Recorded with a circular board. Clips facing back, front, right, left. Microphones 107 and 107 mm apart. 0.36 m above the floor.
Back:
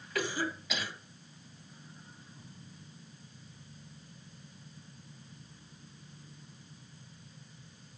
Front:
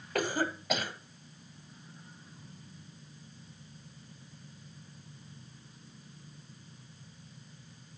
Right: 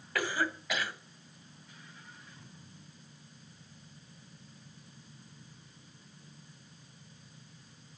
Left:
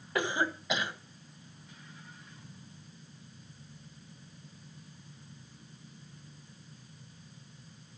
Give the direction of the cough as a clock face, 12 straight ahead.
11 o'clock.